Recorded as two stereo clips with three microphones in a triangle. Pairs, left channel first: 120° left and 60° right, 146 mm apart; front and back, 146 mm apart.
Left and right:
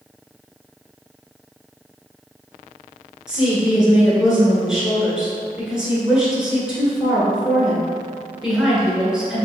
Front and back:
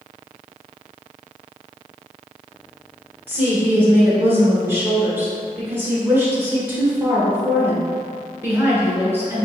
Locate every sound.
3.3 s a woman speaking: 135° right, 1.4 m